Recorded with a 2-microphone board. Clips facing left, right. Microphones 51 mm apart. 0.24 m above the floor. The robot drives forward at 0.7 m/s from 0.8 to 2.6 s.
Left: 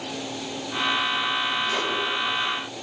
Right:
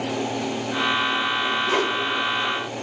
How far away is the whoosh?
About 1.9 m.